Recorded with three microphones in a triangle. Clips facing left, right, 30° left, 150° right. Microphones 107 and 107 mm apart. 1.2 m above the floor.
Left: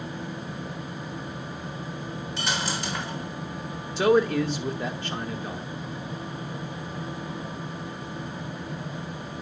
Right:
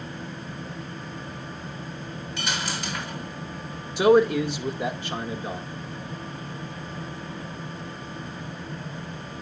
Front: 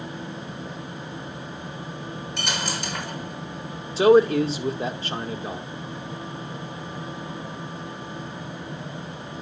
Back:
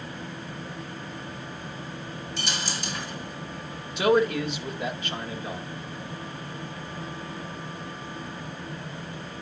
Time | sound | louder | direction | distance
2.4 | a dropped coin | left 1 dB, front 4 dB | 35° left | 1.6 m
4.0 | a man speaking | right 3 dB, front 6 dB | 15° right | 0.8 m